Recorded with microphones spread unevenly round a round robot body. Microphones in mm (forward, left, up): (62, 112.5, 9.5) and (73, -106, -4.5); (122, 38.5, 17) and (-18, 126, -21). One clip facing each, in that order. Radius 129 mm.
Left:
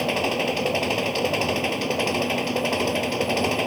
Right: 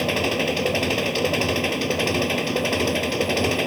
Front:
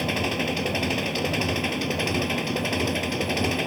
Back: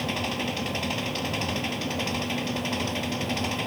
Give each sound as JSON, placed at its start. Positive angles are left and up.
{"t": 0.0, "sound": "an engine running", "azimuth_deg": -15}